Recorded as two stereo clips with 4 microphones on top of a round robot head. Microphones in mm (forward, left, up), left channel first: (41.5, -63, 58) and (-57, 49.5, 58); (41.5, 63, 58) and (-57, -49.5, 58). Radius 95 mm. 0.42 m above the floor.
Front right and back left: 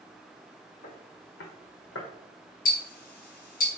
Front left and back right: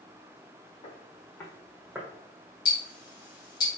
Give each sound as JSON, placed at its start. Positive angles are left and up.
{"t": 0.8, "sound": "footsteps", "azimuth_deg": -5, "distance_m": 1.7}
{"t": 2.6, "sound": "ticking", "azimuth_deg": -15, "distance_m": 1.4}